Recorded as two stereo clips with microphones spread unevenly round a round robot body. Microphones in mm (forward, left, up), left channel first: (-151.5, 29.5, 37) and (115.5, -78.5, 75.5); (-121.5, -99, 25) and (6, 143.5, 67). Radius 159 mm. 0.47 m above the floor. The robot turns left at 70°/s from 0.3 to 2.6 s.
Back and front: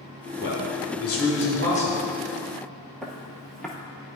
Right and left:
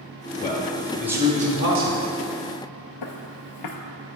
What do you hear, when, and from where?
0.4 s a man speaking: 160° right, 1.5 m; by 2.1 s 80° left, 1.5 m
3.0 s footsteps: 110° right, 0.7 m